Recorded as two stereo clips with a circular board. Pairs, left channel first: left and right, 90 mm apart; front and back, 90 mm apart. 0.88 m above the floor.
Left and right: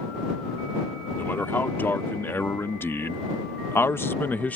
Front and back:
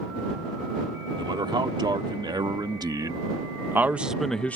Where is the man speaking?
155° left; by 4.6 s 40° left.